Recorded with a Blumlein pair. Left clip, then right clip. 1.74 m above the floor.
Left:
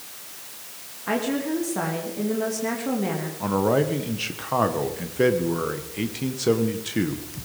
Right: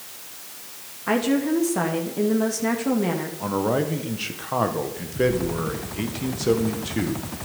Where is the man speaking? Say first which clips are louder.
Left 3 dB; 5° left, 1.8 m.